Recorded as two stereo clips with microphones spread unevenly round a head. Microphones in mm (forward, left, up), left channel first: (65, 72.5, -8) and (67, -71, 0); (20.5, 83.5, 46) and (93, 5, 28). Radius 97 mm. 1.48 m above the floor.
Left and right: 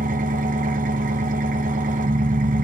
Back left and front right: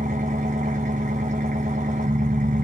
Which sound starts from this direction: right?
An engine running, at 0.0 s.